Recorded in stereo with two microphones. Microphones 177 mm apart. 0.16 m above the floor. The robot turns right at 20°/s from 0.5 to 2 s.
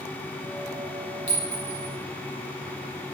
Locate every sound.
1.3 s a clink: 40° left (ahead or behind), 1.1 m